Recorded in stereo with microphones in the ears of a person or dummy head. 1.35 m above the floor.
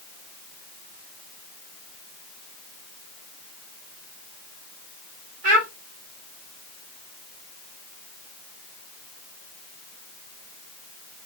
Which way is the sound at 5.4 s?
55° right (ahead or behind).